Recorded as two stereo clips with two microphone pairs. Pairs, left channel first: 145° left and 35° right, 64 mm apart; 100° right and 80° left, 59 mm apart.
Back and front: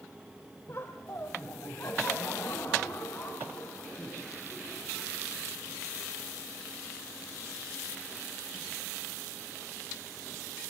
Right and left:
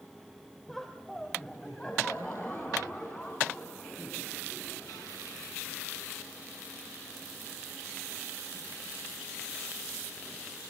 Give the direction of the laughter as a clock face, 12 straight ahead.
6 o'clock.